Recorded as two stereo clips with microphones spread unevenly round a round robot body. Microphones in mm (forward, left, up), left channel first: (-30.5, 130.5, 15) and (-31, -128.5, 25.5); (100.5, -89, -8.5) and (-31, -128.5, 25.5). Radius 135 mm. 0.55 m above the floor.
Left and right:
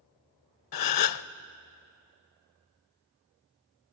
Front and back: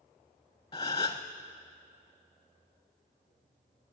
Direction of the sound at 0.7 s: 95° left.